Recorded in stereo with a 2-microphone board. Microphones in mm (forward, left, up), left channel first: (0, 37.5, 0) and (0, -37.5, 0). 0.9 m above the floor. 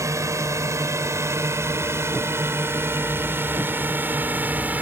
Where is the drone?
45° right (ahead or behind); by 4.8 s 25° right (ahead or behind).